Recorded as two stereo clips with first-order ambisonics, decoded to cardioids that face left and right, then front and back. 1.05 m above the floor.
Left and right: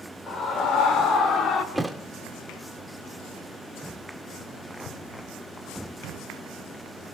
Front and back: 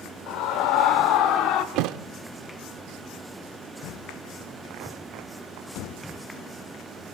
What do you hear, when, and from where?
0.3 s a scream: 30° left, 4.5 m; by 1.6 s 35° left, 3 m
1.8 s a thud: straight behind, 0.9 m